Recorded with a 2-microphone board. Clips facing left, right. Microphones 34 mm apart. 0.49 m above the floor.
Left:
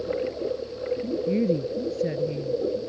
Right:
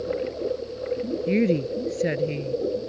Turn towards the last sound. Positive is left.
turn(degrees=-85)